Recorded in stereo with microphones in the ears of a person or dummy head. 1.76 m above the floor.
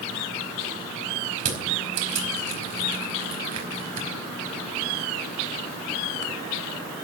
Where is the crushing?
40° right (ahead or behind), 4.5 m.